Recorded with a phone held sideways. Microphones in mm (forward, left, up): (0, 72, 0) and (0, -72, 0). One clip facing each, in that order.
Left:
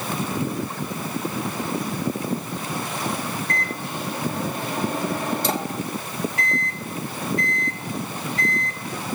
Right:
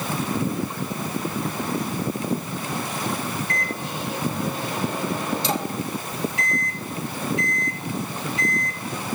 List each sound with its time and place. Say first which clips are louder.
3.5 s a microwave: even; 50° left (ahead or behind), 1.9 m